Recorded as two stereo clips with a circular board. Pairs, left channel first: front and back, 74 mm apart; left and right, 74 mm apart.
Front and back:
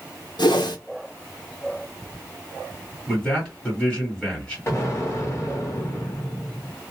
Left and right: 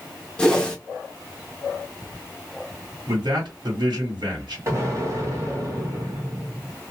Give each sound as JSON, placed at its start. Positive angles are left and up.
{"t": 0.4, "sound": "a whoosh", "azimuth_deg": 10, "distance_m": 0.9}
{"t": 3.1, "sound": "a man speaking", "azimuth_deg": -80, "distance_m": 1.8}
{"t": 4.7, "sound": "an explosion", "azimuth_deg": -50, "distance_m": 1.4}